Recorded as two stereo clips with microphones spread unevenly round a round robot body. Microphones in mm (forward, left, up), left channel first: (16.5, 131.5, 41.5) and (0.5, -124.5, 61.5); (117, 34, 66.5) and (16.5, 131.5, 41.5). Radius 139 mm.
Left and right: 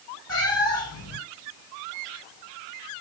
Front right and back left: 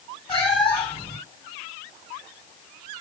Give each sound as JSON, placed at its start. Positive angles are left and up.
{"t": 0.3, "sound": "a cat meowing", "azimuth_deg": 10, "distance_m": 1.4}